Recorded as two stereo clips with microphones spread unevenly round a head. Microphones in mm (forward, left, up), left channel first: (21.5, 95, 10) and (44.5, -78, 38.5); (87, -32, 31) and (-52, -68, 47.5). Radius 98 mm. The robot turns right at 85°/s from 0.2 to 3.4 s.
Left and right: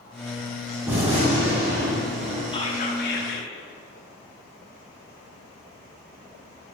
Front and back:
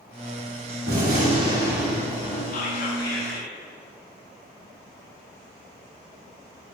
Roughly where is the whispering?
Ahead left.